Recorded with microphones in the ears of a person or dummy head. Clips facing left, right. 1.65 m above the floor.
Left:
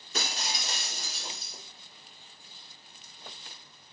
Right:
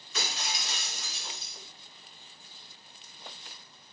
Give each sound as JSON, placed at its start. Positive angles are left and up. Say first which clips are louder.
{"t": 0.1, "sound": "breaking glass", "louder": "left 1 dB", "side_deg": 40, "distance_m": 5.0}